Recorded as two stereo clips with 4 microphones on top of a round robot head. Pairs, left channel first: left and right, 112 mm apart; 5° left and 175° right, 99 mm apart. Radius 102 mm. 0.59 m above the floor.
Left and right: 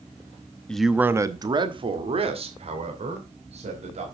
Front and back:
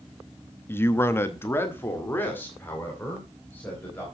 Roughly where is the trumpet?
I don't hear a trumpet.